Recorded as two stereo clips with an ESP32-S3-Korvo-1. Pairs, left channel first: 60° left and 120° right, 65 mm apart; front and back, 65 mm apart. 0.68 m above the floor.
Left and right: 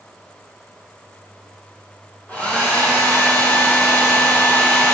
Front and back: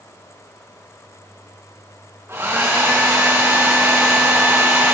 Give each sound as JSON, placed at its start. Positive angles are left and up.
{"t": 2.3, "sound": "a hair dryer", "azimuth_deg": 125, "distance_m": 5.0}